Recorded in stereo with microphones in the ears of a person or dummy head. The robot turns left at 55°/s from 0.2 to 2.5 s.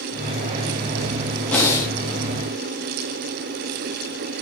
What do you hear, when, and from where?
1.5 s breathing: 5° left (ahead or behind), 1.1 m; by 1.9 s 15° left (ahead or behind), 1.1 m